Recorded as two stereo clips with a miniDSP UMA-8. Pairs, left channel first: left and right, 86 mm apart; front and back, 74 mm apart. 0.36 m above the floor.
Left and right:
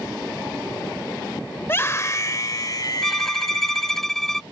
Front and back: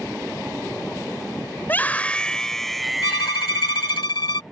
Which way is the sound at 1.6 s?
40° left.